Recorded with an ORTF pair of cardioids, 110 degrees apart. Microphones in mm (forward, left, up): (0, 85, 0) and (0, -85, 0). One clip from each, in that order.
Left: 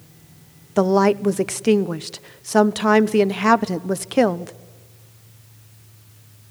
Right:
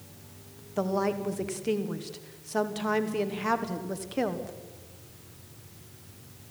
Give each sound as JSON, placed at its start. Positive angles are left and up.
{"t": 0.8, "sound": "a woman speaking", "azimuth_deg": 55, "distance_m": 1.1}